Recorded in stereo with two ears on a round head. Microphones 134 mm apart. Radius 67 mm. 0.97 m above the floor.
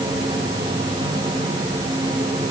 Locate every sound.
Only background noise.